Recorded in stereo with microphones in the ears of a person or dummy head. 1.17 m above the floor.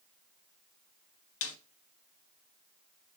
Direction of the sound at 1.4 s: 75° left (ahead or behind).